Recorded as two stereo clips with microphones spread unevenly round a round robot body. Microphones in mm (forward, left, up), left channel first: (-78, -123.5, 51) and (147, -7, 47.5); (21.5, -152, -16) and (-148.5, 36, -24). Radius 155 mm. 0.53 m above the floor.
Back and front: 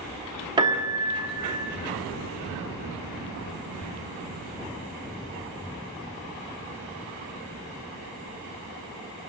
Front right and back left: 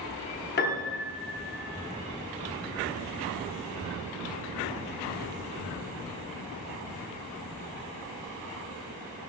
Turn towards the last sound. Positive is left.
turn(degrees=-30)